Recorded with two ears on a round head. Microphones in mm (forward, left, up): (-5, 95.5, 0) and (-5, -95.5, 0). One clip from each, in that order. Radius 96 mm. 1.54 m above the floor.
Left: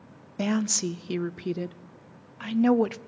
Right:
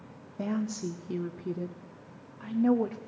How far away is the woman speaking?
About 0.5 m.